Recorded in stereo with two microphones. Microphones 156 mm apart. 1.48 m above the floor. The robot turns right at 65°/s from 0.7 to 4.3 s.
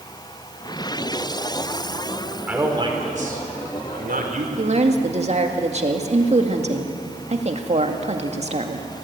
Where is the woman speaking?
45° right (ahead or behind), 2 m.